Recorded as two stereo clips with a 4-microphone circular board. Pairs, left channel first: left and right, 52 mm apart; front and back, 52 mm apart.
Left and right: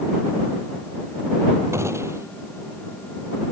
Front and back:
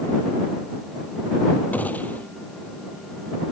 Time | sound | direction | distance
1.7 | a gunshot | 60° right | ?